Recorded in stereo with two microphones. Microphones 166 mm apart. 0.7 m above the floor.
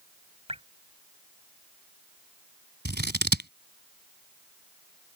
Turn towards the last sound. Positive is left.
turn(degrees=-75)  # may be behind; listen again after turning